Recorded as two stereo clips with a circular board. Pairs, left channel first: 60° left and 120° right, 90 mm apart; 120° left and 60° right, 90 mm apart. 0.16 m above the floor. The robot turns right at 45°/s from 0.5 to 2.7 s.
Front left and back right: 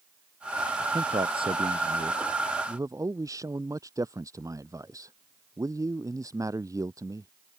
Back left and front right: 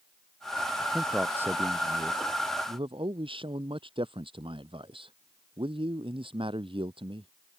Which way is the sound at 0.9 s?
150° right.